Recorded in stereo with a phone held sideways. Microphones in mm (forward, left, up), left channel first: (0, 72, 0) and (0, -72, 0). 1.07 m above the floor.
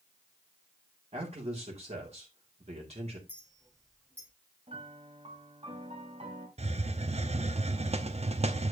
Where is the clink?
10° left (ahead or behind), 5.5 m.